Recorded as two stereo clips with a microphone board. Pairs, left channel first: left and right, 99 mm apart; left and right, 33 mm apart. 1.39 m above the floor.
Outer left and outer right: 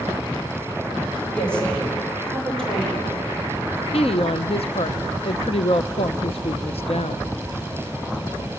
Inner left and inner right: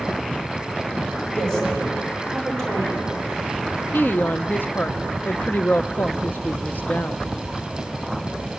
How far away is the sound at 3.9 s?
About 0.7 m.